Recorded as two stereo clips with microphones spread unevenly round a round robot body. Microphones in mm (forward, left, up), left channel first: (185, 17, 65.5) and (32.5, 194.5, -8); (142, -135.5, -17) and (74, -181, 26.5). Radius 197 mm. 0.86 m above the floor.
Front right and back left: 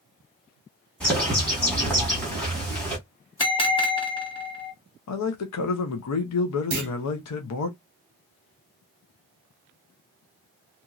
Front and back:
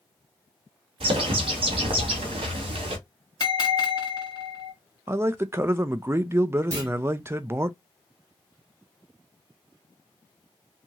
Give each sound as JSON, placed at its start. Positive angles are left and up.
{"t": 1.0, "sound": "a bird", "azimuth_deg": -155, "distance_m": 1.2}
{"t": 3.4, "sound": "a bell", "azimuth_deg": 25, "distance_m": 1.6}
{"t": 5.1, "sound": "a man speaking", "azimuth_deg": -65, "distance_m": 0.5}
{"t": 6.7, "sound": "a clunk", "azimuth_deg": 175, "distance_m": 0.6}